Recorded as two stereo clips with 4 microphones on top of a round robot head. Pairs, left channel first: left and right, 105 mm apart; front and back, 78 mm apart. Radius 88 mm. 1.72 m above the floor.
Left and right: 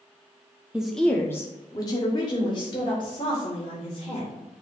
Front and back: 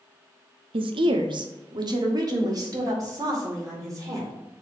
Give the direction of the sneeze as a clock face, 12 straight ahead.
No sneeze in this recording.